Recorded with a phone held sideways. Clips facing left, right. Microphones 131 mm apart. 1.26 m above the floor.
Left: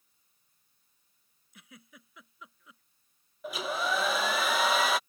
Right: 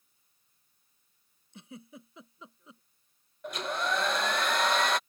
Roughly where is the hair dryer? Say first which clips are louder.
Even; centre.